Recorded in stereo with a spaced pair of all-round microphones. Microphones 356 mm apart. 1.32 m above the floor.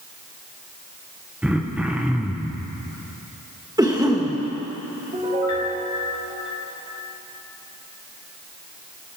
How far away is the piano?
About 5 m.